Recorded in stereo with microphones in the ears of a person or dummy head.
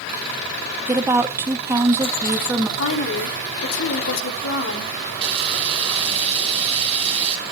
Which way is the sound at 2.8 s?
85° left.